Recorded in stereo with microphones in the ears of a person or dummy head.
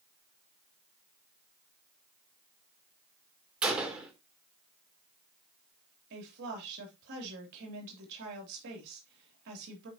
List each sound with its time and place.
3.6 s a gunshot: 5° right (ahead or behind), 1.7 m
6.1 s a woman speaking: 65° right (ahead or behind), 3 m